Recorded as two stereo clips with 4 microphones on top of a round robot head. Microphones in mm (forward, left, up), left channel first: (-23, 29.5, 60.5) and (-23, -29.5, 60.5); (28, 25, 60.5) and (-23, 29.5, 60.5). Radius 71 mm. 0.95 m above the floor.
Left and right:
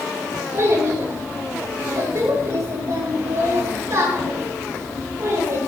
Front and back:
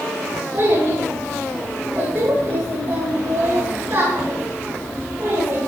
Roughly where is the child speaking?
Behind right.